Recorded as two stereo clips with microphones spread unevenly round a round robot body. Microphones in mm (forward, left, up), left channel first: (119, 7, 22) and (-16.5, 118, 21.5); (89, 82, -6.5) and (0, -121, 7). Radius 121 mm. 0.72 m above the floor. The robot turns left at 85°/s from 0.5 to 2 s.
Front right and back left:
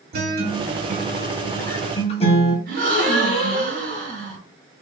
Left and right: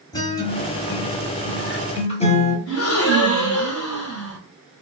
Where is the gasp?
105° left, 2 m.